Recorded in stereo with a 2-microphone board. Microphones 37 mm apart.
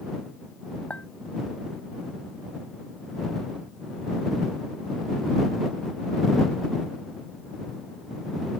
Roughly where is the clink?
Left.